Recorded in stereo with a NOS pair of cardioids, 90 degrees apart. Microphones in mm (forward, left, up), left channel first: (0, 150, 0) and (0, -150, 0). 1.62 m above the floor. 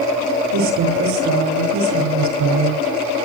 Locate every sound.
0.5 s a woman speaking: 70° right, 7.5 m